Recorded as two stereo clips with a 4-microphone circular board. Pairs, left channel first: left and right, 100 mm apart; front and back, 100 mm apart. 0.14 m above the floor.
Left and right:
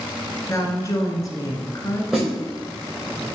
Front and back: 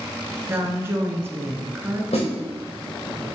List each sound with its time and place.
0.5 s a woman speaking: 125° left, 1.6 m
2.1 s a snare drum: straight ahead, 3 m